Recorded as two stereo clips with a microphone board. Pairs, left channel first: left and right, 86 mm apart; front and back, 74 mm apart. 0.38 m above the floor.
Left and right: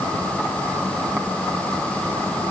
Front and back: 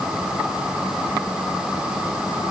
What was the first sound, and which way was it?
Only background noise.